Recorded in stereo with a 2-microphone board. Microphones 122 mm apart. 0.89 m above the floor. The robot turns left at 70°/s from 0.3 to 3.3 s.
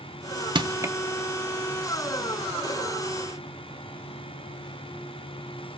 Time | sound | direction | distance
0.6 | crushing | 40° right (ahead or behind) | 0.8 m